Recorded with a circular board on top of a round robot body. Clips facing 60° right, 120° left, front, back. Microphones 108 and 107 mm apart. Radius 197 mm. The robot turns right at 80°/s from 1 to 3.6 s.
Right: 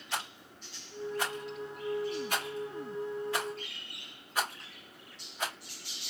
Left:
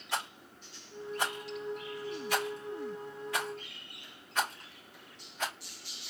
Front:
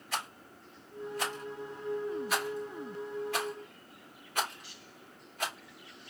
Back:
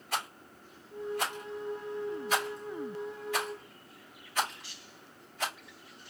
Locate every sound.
0.1 s a rattle: 170° left, 2.5 m; by 5.5 s 15° left, 2.5 m